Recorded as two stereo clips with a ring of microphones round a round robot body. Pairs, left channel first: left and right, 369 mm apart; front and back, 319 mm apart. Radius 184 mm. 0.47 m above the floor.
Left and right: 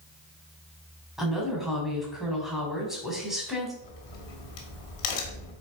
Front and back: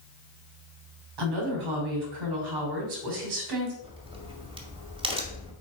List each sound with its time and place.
1.2 s a woman speaking: straight behind, 3 m
3.8 s a crack: 105° left, 2 m